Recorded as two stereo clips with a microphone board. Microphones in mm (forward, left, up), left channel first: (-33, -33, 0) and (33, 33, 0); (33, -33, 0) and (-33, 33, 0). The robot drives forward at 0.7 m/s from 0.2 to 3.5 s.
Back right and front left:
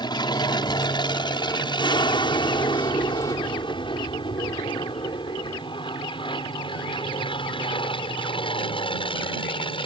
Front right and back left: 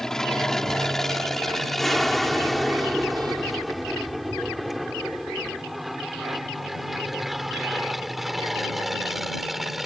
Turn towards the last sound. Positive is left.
turn(degrees=-135)